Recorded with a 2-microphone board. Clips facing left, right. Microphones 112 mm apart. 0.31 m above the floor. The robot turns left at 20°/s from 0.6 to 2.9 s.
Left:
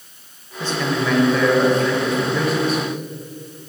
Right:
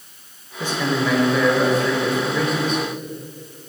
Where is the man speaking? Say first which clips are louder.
Even; 15° right (ahead or behind), 1.0 m; by 2.8 s 5° left (ahead or behind), 1.0 m.